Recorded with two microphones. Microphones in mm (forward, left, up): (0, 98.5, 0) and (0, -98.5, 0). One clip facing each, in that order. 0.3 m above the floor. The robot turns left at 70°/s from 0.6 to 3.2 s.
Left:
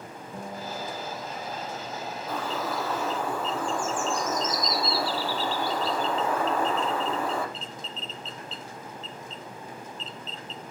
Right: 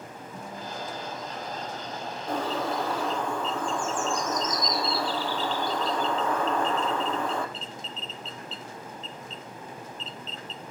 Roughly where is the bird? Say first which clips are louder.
Right 3 dB; behind right.